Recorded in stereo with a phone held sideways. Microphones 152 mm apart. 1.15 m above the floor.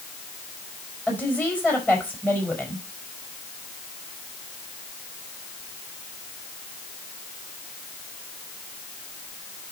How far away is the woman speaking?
About 5.5 m.